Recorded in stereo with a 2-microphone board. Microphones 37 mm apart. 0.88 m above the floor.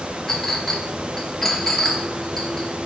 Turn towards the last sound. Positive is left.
turn(degrees=10)  # may be behind; listen again after turning